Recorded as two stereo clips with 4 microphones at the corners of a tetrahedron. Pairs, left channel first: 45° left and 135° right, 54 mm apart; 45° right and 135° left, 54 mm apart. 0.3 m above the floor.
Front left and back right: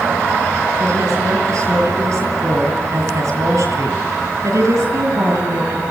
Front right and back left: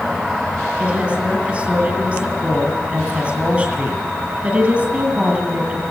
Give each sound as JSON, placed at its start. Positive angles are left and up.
{"t": 0.8, "sound": "a woman speaking", "azimuth_deg": -160, "distance_m": 8.0}